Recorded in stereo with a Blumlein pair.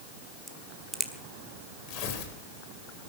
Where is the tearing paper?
40° left, 3.5 m.